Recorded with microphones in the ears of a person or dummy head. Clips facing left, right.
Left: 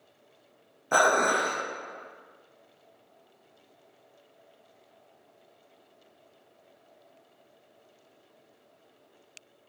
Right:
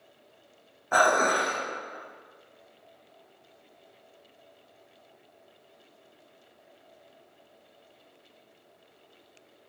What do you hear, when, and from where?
0.9 s dishes clattering: 30° left (ahead or behind), 0.5 m